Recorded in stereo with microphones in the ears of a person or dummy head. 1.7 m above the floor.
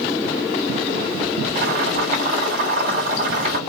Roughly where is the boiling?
Right.